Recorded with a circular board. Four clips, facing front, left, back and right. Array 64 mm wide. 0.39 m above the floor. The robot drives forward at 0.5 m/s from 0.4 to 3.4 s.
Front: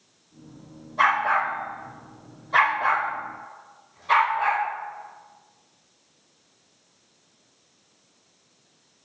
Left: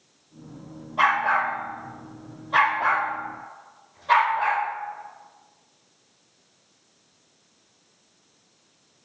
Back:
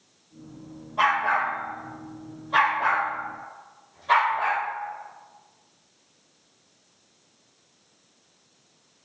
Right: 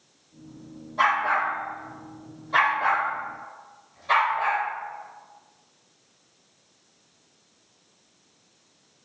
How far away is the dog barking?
About 4.5 m.